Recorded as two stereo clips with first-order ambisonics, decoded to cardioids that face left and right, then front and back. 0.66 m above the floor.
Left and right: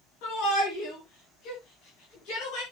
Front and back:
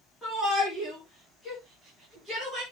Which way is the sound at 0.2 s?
85° left.